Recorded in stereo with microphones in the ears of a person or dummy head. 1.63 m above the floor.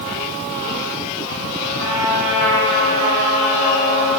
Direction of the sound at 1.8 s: 65° right (ahead or behind).